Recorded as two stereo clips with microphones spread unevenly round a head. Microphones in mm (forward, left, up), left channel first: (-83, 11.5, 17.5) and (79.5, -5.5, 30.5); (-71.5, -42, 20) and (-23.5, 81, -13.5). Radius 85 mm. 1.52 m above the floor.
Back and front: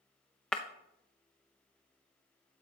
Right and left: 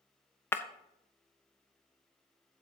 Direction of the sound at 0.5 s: 95° right.